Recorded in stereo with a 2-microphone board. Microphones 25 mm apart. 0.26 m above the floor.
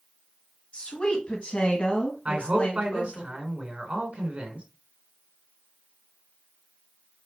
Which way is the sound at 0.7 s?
45° left (ahead or behind).